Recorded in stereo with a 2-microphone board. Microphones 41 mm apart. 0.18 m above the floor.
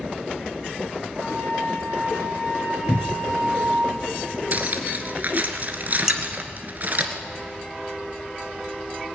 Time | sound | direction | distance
1.2 | a flute | 70° right (ahead or behind) | 5 m
2.9 | a cupboard door | 55° right (ahead or behind) | 1.0 m
4.5 | cutlery clinking | 45° right (ahead or behind) | 1.6 m
6.1 | dishes clattering | 10° right (ahead or behind) | 1.1 m